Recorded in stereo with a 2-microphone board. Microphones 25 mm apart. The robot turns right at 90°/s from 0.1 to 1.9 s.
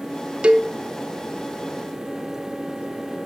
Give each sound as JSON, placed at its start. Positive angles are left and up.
{"t": 0.4, "sound": "a cowbell", "side_deg": -45, "distance_m": 0.5}